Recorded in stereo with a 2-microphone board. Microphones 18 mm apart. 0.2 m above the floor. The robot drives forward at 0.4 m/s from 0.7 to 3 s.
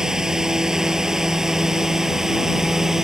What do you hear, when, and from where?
0.0 s a drone: 30° right (ahead or behind); by 3.1 s 25° right (ahead or behind)